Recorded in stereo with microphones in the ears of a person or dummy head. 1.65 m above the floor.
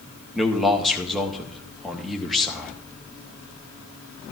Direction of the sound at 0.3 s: Centre (ahead or behind).